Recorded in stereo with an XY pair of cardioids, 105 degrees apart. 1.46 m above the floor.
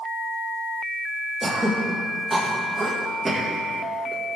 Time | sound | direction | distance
1.4 | throat clearing | 15° right | 2.5 m